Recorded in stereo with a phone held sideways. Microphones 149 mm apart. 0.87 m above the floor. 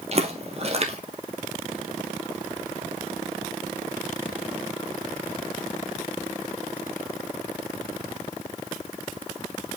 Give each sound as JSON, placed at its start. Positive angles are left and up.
{"t": 0.1, "sound": "footsteps", "side_deg": -45, "distance_m": 1.3}